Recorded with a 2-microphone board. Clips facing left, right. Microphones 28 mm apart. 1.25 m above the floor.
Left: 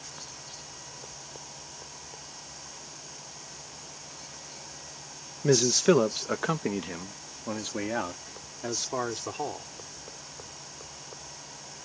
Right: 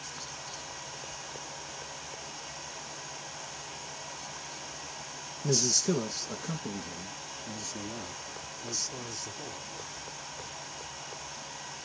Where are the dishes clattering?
No dishes clattering in this recording.